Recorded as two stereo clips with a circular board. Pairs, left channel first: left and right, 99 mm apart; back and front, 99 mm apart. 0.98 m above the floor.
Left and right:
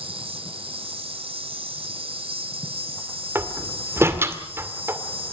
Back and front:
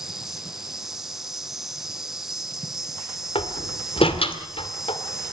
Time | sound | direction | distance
0.0 | an insect | 85° right | 2 m
3.4 | a door slam | 155° right | 2 m